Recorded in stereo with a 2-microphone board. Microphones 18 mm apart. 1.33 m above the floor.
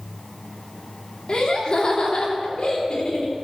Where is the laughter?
55° left (ahead or behind), 3 m.